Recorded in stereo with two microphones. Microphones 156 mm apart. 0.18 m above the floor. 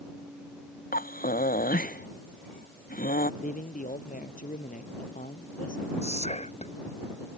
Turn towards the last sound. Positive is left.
turn(degrees=45)  # may be behind; listen again after turning